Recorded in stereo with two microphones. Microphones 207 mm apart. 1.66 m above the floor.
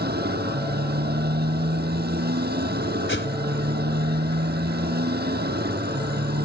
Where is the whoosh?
70° left (ahead or behind).